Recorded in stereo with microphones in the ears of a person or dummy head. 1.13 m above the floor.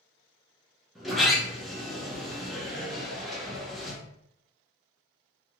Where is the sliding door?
Centre (ahead or behind), 1.1 m.